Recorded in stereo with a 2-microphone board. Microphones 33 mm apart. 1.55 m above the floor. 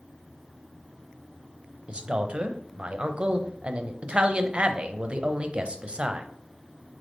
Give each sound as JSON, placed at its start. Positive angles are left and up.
{"t": 1.9, "sound": "a man speaking", "side_deg": -35, "distance_m": 0.5}